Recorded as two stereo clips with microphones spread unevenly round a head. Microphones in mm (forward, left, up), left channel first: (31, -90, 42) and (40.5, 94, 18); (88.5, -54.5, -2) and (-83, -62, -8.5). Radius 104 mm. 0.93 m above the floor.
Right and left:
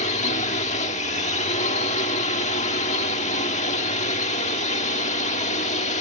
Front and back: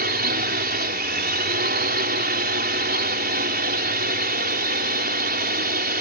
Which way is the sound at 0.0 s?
150° right.